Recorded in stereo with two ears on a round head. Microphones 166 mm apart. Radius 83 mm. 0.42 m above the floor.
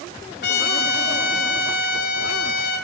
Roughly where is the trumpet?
Left.